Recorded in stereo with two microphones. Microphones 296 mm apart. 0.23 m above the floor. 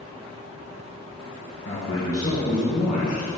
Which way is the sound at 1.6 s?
45° left (ahead or behind).